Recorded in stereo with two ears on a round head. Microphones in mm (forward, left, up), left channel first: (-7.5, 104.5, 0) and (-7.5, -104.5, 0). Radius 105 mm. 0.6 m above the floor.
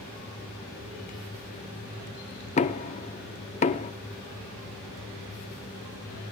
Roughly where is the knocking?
Left.